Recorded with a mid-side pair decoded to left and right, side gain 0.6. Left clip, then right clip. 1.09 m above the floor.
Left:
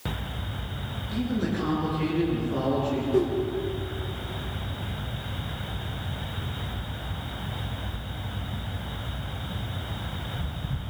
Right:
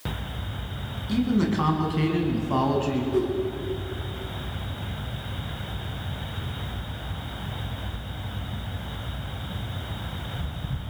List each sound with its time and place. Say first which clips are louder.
1.1 s a man speaking: right 5 dB; 60° right, 9 m; by 3.0 s 65° right, 7 m
3.1 s a whoosh: left 2 dB; straight ahead, 5.5 m